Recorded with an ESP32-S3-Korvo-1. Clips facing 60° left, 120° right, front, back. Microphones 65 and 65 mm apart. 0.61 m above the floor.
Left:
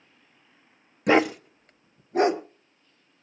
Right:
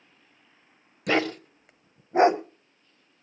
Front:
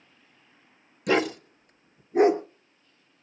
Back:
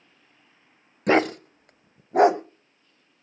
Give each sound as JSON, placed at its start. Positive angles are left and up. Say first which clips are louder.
{"t": 1.1, "sound": "a dog barking", "louder": "left 5 dB, back 4 dB", "azimuth_deg": 130, "distance_m": 0.7}